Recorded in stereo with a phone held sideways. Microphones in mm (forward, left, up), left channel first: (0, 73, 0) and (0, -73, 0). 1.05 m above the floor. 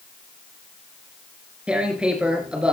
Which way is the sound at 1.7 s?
5° right (ahead or behind).